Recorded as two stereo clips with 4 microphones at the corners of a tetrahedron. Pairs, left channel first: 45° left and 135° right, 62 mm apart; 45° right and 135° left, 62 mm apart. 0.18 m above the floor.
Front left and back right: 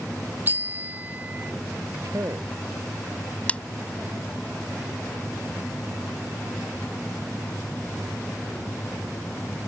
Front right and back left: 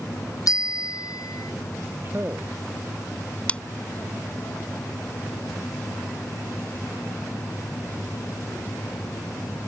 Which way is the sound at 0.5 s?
75° right.